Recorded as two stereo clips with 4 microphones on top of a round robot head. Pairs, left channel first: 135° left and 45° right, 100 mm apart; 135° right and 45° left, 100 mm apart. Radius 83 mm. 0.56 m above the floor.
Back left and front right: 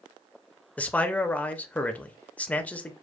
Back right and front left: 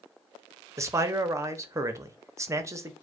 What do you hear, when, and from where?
0.8 s a man speaking: 70° left, 0.9 m